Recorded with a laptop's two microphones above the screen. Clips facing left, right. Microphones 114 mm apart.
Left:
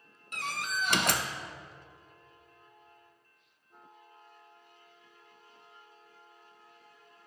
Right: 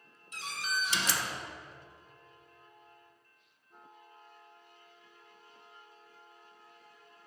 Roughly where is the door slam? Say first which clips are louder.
Left 2 dB; left.